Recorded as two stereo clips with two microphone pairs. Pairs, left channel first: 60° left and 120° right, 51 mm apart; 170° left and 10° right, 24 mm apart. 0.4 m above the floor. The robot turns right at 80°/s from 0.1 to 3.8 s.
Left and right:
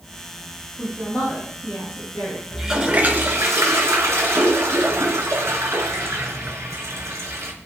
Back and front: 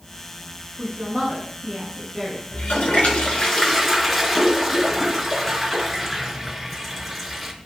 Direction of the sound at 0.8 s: 25° right.